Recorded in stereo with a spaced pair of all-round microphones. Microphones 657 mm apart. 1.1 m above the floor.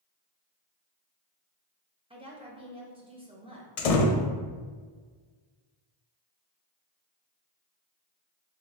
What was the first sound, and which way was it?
A woman speaking, 10° right (ahead or behind).